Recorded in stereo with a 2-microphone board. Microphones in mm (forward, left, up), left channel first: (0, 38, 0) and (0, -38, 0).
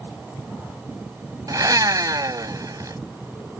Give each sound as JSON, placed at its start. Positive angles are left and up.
{"t": 1.5, "sound": "a blender", "side_deg": -55}